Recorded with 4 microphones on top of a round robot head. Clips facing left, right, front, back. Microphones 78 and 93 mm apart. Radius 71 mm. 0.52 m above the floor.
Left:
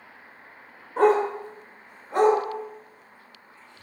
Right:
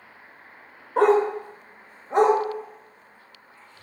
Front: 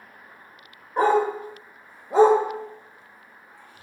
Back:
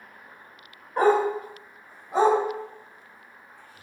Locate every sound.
1.0 s a dog barking: 75° right, 0.7 m; by 3.8 s 20° left, 1.2 m